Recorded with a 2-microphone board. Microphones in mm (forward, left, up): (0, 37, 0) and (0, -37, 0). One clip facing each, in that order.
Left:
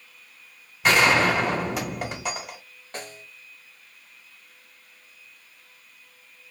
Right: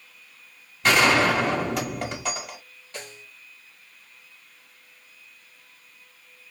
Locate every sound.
0.8 s a gunshot: 5° left (ahead or behind), 1.7 m
2.9 s a snare drum: 35° left (ahead or behind), 1.0 m